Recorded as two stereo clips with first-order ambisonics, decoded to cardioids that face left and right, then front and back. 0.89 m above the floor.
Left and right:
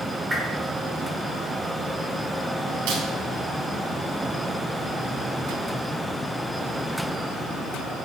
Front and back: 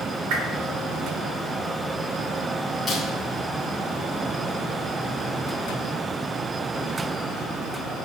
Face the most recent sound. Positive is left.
turn(degrees=-90)